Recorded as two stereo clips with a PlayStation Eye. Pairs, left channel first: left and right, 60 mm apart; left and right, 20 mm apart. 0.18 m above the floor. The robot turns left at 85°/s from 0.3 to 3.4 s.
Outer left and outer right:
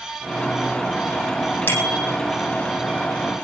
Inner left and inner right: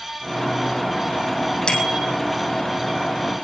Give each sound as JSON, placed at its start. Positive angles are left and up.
{"t": 1.7, "sound": "a bicycle bell", "azimuth_deg": 40, "distance_m": 5.0}